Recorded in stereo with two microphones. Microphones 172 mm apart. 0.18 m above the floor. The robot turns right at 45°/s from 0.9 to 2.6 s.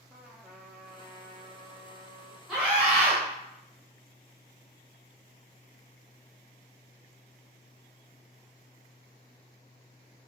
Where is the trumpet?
170° right, 0.8 m; by 2.4 s 105° right, 0.8 m.